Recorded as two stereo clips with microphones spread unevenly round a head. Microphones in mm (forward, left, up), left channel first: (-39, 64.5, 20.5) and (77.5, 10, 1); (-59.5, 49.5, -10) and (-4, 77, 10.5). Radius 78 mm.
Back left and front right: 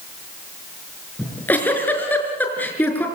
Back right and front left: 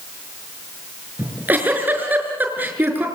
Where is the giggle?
80° left, 5.5 m.